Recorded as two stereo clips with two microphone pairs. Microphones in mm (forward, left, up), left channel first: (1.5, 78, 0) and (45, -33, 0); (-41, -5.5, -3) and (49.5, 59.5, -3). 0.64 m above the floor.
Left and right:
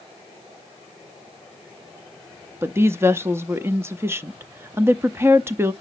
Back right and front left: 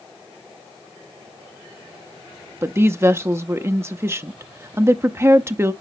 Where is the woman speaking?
10° right, 0.7 m.